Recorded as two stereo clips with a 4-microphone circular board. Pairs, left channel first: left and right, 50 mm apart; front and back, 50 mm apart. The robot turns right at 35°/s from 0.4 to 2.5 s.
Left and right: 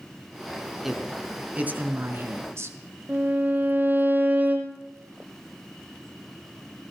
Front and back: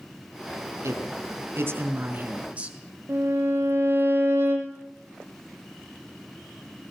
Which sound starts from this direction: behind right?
A violin, at 3.1 s.